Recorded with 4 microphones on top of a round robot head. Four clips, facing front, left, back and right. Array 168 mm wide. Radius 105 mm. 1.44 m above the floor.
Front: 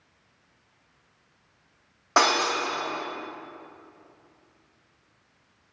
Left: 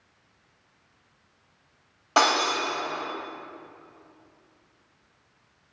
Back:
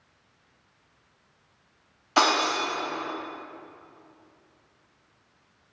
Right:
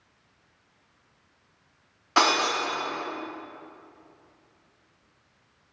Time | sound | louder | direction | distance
2.2 | breaking glass | left 1 dB, even | 30° left | 4.5 m